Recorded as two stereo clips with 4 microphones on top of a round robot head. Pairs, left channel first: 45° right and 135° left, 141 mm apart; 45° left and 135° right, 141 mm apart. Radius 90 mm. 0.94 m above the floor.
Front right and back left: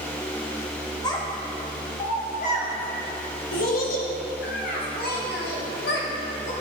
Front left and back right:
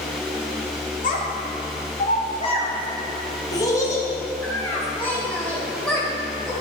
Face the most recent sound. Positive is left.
turn(degrees=-40)